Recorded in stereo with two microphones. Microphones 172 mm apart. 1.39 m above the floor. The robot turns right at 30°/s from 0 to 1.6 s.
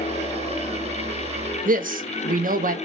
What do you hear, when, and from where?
1.6 s a man speaking: 55° right (ahead or behind), 0.6 m